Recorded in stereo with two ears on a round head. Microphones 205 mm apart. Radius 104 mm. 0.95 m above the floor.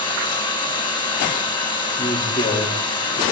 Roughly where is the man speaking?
Centre.